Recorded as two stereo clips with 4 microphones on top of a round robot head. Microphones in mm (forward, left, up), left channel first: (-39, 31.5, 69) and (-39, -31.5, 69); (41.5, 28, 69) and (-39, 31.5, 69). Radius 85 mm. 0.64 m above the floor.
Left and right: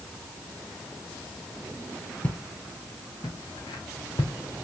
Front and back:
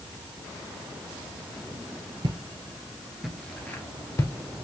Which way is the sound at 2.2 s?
155° left.